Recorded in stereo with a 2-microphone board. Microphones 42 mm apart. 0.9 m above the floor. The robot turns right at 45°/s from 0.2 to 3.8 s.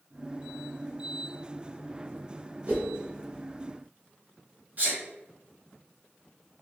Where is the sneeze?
40° right (ahead or behind), 1.3 m.